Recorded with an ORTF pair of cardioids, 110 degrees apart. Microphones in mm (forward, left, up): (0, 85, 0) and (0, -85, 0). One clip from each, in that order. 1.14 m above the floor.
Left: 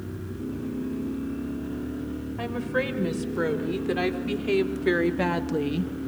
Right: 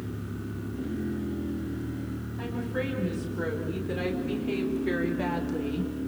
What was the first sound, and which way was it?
A woman speaking, 55° left.